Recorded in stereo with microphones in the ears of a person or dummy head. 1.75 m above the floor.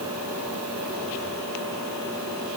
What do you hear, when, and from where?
Only background noise.